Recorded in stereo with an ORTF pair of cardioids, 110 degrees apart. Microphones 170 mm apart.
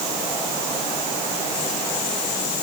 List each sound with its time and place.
Only background noise.